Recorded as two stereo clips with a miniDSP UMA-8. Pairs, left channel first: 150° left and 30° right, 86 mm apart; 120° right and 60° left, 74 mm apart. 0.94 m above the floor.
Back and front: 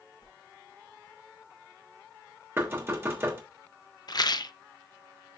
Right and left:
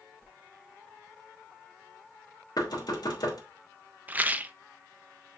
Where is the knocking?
90° right, 3 m.